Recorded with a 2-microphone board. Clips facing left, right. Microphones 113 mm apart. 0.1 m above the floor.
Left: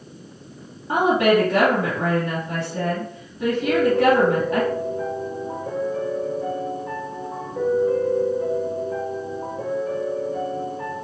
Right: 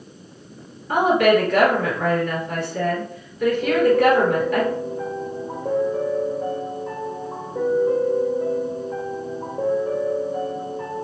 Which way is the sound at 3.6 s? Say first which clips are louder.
Right 1 dB; 40° right (ahead or behind).